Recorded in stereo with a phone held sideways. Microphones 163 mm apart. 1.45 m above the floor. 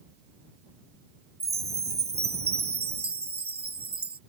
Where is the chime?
75° right (ahead or behind).